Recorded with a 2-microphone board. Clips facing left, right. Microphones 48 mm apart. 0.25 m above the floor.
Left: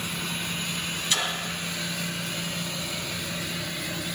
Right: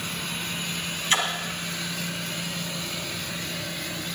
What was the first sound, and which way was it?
A splash, 40° right (ahead or behind).